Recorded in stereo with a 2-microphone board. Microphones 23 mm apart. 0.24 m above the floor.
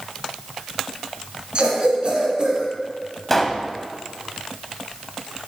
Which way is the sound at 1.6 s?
45° right (ahead or behind).